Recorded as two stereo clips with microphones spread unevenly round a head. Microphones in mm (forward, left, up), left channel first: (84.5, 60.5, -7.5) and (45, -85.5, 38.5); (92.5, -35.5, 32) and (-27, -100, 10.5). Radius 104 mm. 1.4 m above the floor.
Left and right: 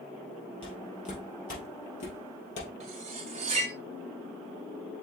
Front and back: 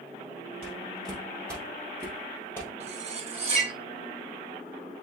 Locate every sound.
0.6 s footsteps: 150° left, 2 m; by 2.7 s 95° left, 2 m
2.8 s cutlery clinking: 115° right, 0.9 m